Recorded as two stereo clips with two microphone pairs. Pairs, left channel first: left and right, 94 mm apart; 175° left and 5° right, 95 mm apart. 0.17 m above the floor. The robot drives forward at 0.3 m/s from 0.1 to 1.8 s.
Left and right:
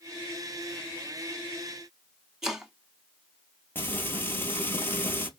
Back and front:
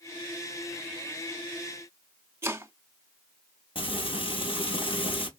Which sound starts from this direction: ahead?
Chopping, at 2.4 s.